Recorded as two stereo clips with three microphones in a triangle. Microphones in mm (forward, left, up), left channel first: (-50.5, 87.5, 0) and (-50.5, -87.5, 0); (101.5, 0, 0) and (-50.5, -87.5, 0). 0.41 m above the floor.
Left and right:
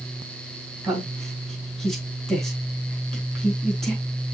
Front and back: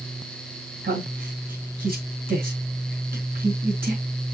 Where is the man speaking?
Straight behind, 3 m.